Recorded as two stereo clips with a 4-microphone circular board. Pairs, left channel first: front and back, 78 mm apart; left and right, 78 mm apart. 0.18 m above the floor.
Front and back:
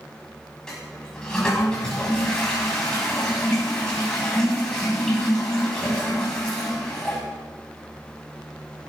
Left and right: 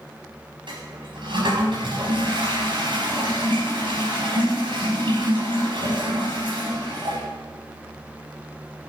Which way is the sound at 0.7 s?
80° right.